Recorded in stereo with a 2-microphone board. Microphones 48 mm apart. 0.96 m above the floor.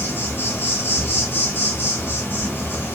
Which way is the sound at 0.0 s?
50° left (ahead or behind).